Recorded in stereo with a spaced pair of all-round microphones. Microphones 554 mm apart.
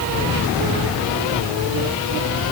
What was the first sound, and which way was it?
Only background noise.